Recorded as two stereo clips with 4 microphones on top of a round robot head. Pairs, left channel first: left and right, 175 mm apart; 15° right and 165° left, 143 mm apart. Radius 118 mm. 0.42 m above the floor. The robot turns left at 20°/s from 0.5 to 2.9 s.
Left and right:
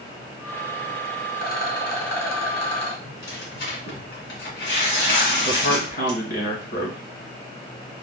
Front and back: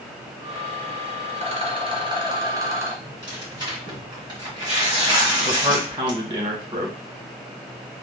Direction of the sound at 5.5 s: 110° left.